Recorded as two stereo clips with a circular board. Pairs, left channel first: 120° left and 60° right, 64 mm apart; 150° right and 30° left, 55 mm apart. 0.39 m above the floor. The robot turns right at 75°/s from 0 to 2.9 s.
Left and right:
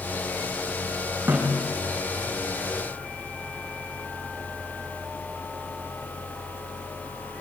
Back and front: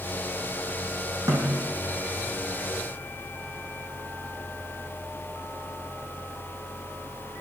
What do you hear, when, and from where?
1.3 s a snare drum: straight ahead, 9 m; by 1.7 s 35° left, 9 m